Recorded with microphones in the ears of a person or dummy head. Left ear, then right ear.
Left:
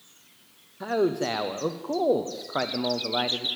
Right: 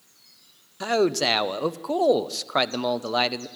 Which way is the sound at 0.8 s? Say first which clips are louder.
Right 3 dB; 80° right.